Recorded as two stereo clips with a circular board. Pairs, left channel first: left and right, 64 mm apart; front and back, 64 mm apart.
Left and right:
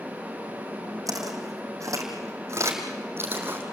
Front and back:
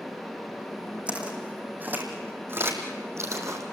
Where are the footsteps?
110° right, 4 m; by 3.6 s 150° right, 3.5 m.